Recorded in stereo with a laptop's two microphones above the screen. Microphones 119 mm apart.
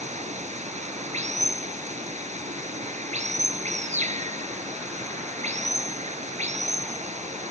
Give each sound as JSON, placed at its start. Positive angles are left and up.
{"t": 0.0, "sound": "running water", "side_deg": -75}